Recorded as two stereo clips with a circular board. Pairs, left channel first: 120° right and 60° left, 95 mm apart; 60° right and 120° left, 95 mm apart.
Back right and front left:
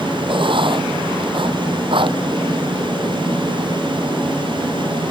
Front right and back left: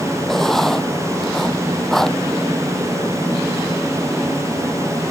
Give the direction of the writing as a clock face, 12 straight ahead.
11 o'clock.